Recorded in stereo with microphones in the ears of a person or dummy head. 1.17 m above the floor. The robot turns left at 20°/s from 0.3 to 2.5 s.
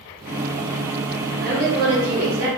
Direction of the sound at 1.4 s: 55° right (ahead or behind).